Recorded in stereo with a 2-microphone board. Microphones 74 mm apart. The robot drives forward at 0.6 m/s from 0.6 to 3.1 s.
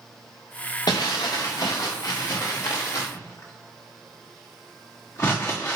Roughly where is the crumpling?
Left.